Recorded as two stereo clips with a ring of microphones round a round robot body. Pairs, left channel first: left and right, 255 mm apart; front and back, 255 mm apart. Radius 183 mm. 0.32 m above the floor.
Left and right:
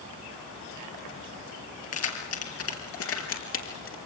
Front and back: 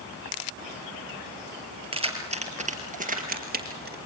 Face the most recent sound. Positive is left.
turn(degrees=130)